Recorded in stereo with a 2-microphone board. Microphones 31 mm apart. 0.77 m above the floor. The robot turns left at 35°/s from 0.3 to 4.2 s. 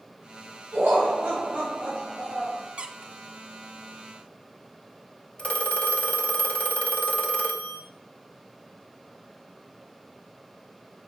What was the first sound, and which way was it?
Laughter, 100° right.